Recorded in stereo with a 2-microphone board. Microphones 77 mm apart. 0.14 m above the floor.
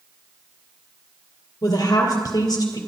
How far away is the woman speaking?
About 2.5 m.